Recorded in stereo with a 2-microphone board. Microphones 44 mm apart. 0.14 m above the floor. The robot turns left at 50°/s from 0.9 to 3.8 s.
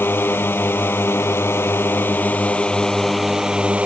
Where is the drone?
115° left; by 3.9 s 30° right.